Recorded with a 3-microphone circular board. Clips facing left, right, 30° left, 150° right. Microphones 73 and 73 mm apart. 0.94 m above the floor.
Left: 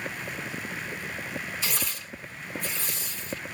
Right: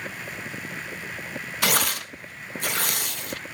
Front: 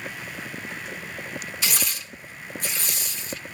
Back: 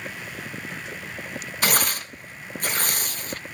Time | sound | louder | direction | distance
1.6 | tearing paper | right 9 dB, back 9 dB | 110° right | 0.6 m